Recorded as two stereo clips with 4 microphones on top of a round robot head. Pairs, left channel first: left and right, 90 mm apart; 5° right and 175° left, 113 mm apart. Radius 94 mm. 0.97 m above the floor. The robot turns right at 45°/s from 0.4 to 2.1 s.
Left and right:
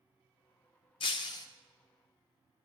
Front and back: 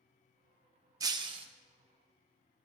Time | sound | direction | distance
1.0 | breaking glass | 120° left | 0.6 m